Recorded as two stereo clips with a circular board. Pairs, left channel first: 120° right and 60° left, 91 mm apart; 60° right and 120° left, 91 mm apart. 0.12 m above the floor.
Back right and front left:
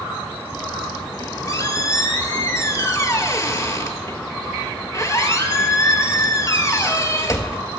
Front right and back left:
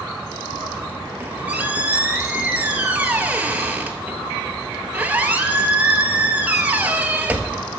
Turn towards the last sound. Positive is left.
turn(degrees=-170)